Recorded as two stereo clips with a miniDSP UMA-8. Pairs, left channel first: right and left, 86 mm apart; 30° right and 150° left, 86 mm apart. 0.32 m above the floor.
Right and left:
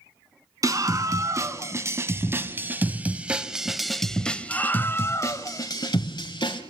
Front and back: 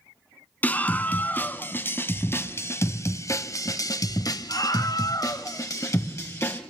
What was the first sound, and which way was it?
A scream, 40° left.